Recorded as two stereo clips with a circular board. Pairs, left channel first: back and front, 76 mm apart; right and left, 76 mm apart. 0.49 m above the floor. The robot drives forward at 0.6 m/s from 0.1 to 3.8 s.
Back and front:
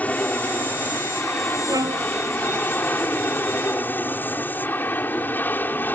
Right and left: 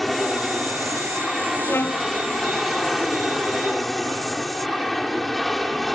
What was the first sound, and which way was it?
An aircraft, 175° right.